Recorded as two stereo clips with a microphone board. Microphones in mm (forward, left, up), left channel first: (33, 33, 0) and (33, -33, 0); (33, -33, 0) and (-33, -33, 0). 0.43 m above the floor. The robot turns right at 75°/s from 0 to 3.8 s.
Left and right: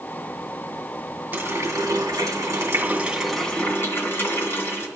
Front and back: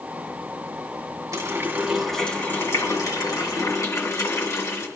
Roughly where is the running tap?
Behind right.